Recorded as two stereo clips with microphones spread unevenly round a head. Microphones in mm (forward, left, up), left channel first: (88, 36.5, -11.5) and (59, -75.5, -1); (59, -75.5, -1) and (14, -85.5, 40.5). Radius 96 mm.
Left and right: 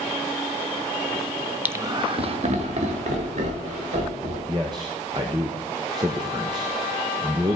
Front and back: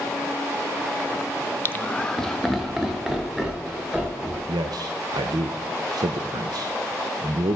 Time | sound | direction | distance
1.6 | laughter | 25° right | 1.0 m
4.5 | a man speaking | 170° right | 0.6 m